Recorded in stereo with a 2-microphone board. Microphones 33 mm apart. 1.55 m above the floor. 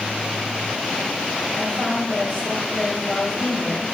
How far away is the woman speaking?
About 3.5 m.